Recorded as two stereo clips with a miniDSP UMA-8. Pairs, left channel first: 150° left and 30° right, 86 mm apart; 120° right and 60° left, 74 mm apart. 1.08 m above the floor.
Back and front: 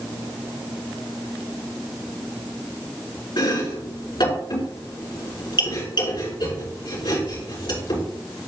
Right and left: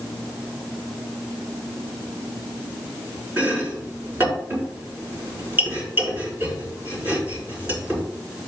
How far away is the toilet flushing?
I don't hear a toilet flushing.